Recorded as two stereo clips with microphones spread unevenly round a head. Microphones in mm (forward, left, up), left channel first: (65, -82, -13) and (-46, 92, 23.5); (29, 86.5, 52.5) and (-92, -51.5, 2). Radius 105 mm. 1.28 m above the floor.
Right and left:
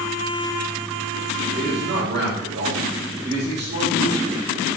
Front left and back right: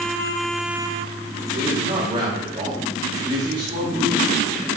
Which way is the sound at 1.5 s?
165° left.